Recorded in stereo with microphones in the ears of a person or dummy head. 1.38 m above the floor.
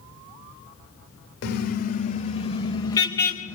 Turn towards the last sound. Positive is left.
turn(degrees=15)  # may be behind; listen again after turning